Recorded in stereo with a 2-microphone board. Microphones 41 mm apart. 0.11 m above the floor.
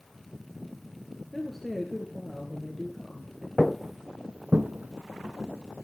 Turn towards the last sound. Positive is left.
turn(degrees=-60)  # may be behind; listen again after turning